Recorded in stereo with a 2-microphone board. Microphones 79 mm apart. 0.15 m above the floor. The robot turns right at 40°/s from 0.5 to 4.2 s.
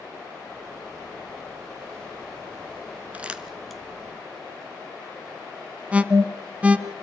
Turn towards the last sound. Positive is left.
turn(degrees=-15)  # may be behind; listen again after turning